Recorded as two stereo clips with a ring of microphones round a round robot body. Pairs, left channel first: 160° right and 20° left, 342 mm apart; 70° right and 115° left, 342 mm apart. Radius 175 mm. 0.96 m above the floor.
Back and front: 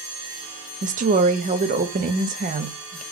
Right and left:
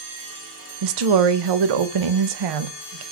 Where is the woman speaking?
90° left, 0.6 m.